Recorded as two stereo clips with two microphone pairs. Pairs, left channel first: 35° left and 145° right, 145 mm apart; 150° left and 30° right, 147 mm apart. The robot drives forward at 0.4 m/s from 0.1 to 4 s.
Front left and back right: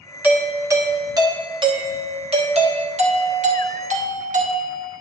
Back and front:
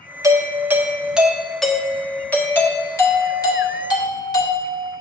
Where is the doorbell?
80° right, 1.2 m; by 5.0 s 155° right, 1.8 m.